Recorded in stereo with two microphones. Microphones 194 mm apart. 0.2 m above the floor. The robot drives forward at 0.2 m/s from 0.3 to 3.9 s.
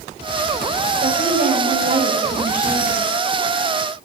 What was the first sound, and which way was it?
A woman speaking, 45° right (ahead or behind).